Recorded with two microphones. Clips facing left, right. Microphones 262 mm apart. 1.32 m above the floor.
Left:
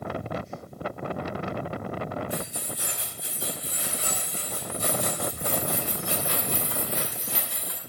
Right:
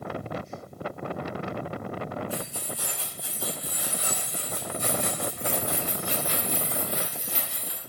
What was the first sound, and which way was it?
Keys jangling, 20° left (ahead or behind).